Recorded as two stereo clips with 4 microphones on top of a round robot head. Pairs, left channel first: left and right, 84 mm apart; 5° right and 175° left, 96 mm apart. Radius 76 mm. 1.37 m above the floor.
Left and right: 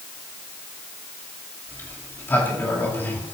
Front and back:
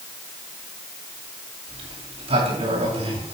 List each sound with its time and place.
1.7 s a sliding door: 155° left, 8 m